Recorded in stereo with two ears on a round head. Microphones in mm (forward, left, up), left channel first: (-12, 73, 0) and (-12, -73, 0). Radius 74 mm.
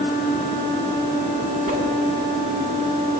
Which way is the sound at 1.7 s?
45° right (ahead or behind).